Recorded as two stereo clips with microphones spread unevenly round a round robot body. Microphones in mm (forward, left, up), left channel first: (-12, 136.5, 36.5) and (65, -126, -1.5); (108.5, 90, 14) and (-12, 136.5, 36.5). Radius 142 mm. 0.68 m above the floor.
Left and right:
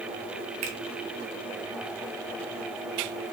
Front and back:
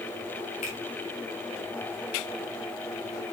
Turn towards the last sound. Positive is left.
turn(degrees=-50)